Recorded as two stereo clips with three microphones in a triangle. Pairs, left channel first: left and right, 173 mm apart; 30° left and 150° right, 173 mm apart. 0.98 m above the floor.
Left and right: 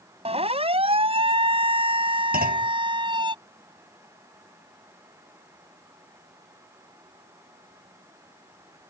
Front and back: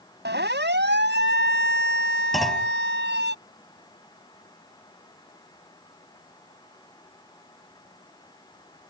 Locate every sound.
0.2 s a siren: 145° right; by 3.3 s 155° right
2.3 s a clunk: 60° right